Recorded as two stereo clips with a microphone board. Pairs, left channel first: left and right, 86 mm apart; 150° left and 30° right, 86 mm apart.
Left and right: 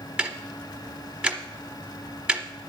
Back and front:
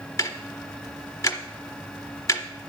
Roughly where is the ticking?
Behind.